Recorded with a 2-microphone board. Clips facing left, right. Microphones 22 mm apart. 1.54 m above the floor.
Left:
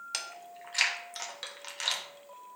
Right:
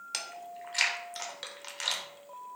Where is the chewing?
Centre (ahead or behind), 0.5 m.